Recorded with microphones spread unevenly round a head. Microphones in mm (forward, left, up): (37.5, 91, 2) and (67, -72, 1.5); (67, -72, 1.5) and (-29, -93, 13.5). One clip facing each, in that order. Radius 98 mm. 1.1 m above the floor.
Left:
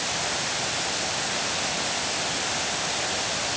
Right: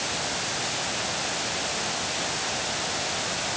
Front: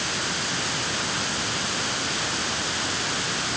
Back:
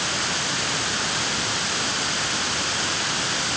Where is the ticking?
No ticking in this recording.